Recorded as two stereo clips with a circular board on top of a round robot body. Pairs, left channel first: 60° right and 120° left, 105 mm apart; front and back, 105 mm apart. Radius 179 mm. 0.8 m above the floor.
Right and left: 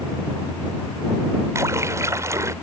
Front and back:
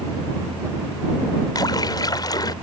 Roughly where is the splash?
Ahead left.